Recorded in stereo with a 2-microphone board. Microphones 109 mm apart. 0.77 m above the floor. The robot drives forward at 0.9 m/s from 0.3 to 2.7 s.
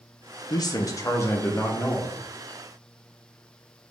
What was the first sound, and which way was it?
A man speaking, 40° left (ahead or behind).